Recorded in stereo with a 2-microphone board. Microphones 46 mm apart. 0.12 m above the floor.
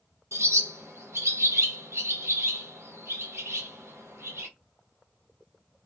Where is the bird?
75° right (ahead or behind), 1.1 m.